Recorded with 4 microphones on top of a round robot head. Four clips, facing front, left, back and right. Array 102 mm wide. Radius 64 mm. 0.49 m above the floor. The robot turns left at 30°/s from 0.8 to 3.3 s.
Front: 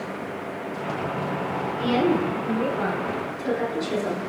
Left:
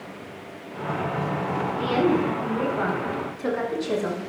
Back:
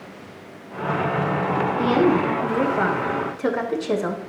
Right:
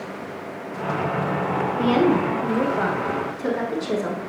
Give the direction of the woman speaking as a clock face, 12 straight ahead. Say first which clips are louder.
Right 3 dB, back 2 dB; 4 o'clock.